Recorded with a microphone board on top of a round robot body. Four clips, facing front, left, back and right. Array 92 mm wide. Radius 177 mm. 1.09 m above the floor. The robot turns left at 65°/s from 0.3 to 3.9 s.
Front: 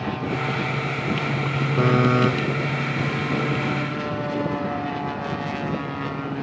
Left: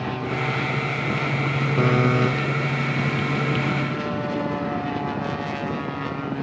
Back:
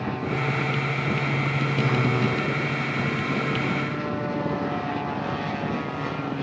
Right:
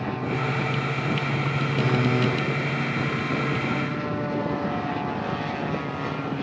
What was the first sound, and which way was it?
A buzzer, 45° left.